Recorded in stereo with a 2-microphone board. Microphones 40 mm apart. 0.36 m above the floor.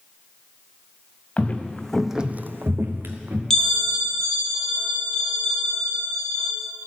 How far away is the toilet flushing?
I don't hear a toilet flushing.